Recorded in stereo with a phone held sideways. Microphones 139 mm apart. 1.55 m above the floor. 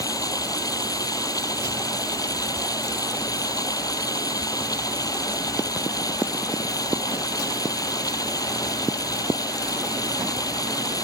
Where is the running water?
25° left (ahead or behind).